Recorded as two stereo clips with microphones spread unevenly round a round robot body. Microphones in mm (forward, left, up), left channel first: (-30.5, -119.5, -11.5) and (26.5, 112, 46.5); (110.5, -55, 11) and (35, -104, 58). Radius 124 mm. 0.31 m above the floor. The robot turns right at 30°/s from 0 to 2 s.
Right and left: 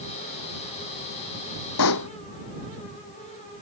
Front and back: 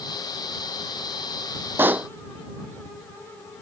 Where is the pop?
80° right; by 2.1 s 75° right.